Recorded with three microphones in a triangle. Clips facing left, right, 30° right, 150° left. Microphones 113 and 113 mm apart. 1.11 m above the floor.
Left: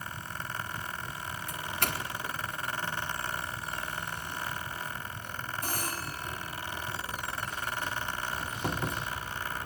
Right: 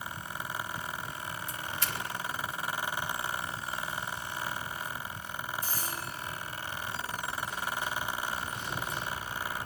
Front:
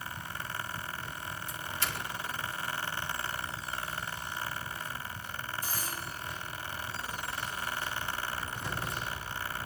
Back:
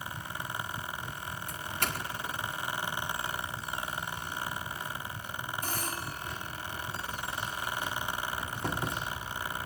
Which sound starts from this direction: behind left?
A doorbell, at 1.5 s.